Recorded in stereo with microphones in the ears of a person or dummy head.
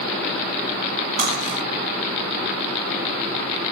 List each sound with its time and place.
1.2 s cutlery clinking: 40° right (ahead or behind), 1.9 m